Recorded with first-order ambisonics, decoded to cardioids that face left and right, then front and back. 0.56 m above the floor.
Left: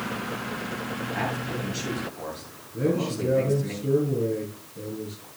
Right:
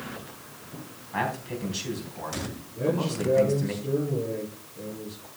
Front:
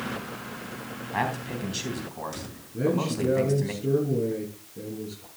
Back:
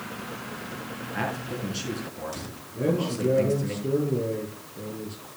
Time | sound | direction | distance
1.1 | a man speaking | 20° right | 3.5 m
2.7 | a man speaking | 25° left | 8 m